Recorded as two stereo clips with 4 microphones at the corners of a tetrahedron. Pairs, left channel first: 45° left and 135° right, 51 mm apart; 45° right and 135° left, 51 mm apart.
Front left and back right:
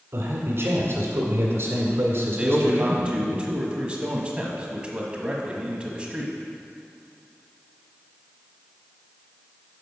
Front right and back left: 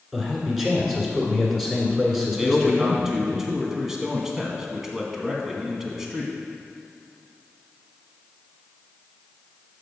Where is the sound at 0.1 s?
140° right, 1.7 m.